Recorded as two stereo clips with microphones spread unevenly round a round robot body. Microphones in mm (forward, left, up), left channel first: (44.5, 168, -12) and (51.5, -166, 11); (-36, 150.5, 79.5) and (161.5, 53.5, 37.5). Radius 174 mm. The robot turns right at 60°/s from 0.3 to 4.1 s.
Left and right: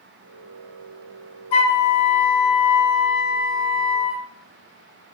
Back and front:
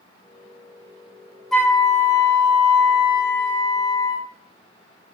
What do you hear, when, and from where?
1.5 s a flute: 65° left, 0.5 m; by 4.2 s 140° right, 0.5 m